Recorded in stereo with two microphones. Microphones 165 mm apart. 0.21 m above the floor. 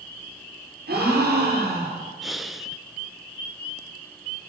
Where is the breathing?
Centre (ahead or behind), 0.7 m.